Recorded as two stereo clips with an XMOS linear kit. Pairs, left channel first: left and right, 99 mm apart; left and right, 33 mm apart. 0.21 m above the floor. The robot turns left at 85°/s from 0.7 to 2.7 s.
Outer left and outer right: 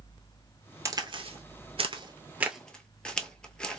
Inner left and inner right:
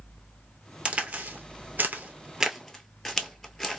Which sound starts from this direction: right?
A crack, at 0.8 s.